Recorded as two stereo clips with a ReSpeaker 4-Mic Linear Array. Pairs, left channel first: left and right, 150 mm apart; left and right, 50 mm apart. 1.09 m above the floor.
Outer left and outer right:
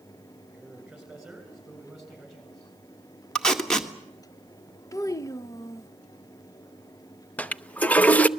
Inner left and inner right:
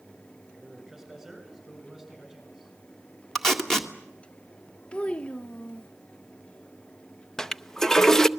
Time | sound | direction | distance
0.5 | a man speaking | 5° right (ahead or behind) | 6.5 m
3.4 | tape being pulled | 5° left (ahead or behind) | 1.8 m
4.9 | a child speaking | 20° left (ahead or behind) | 0.6 m
7.4 | a toilet flushing | 10° left (ahead or behind) | 0.6 m